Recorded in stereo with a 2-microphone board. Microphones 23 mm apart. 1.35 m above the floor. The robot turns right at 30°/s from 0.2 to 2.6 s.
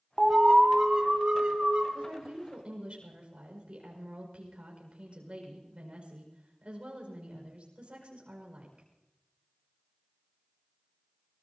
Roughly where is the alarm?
Behind right.